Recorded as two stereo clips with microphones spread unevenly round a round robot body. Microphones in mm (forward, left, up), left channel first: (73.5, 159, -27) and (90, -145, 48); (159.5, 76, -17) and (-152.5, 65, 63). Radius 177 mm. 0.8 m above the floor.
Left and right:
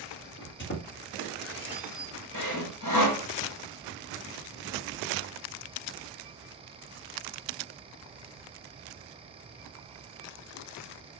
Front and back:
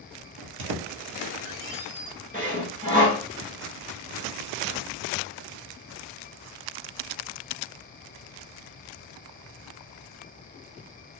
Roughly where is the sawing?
Left.